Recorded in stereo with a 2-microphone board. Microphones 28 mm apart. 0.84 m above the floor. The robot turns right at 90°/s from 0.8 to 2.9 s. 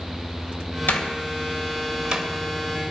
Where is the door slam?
90° left, 2.5 m; by 2.2 s 30° right (ahead or behind), 2.5 m.